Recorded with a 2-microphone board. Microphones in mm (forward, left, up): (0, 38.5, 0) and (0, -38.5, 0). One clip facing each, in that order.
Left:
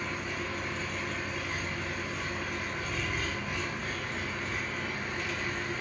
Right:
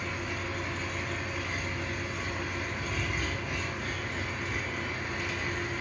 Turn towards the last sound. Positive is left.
turn(degrees=-5)  # may be behind; listen again after turning